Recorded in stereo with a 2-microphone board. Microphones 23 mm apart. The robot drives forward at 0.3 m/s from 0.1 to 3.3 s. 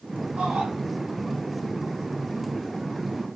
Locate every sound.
0.4 s a shout: 75° right (ahead or behind), 8.5 m